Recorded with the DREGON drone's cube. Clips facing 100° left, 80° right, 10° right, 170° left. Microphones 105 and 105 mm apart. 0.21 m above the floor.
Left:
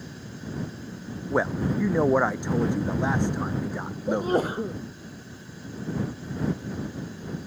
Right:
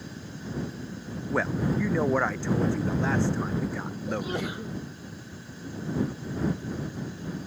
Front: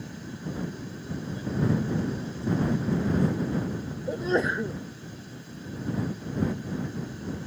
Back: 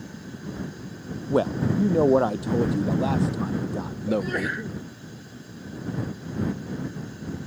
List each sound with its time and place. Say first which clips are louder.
1.3 s a man speaking: left 2 dB, back 6 dB; 175° left
4.1 s a sneeze: left 8 dB, even; 55° left